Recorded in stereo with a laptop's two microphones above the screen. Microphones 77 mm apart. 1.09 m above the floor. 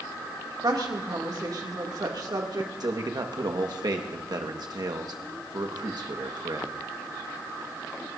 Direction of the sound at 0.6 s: 60° right (ahead or behind).